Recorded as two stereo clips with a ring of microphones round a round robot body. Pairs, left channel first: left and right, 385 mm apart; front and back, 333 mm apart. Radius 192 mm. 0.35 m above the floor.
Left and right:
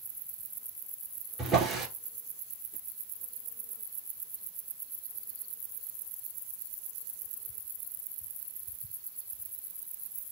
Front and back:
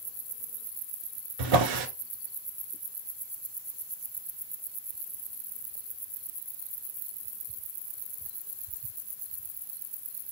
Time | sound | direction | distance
1.4 | a drawer | straight behind | 1.5 m